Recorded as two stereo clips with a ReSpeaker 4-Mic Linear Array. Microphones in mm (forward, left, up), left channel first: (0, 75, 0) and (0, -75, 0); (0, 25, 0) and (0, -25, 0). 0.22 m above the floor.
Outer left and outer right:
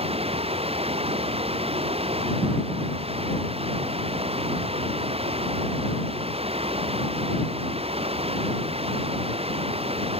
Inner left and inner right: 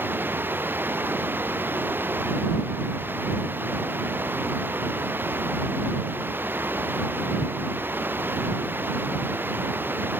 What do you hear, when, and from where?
0.0 s running water: 40° right (ahead or behind)